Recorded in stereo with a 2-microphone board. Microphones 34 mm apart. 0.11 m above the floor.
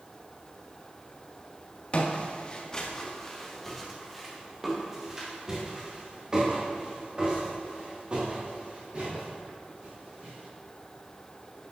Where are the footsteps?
35° left (ahead or behind), 2.5 m; by 10.4 s 40° right (ahead or behind), 7.5 m.